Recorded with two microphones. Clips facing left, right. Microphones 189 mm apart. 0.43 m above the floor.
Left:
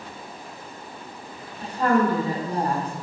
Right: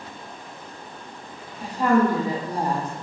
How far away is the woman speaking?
About 0.9 m.